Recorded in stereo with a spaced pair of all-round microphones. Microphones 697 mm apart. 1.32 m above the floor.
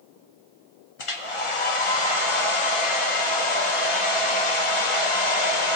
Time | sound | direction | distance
1.0 | a hair dryer | 50° left (ahead or behind) | 0.7 m